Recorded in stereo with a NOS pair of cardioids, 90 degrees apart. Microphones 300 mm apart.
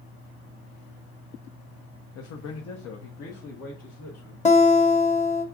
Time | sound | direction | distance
2.1 | a man speaking | 65° left | 0.6 m
4.5 | a guitar | 25° left | 1.1 m